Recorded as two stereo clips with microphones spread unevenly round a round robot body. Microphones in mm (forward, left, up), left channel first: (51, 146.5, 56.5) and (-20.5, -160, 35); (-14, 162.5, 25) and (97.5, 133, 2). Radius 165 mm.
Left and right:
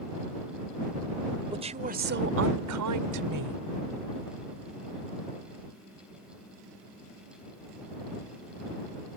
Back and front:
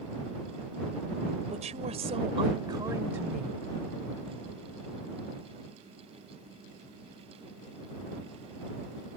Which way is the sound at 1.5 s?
30° right.